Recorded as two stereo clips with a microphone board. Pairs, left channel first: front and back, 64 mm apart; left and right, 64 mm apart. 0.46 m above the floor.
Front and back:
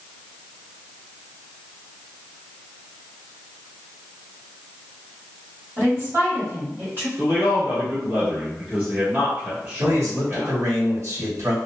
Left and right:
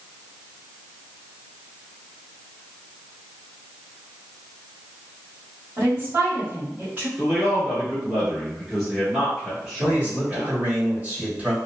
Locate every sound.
5.8 s a woman speaking: 140° right, 1.5 m
7.2 s a man speaking: 155° right, 1.0 m
9.8 s a man speaking: 155° right, 1.5 m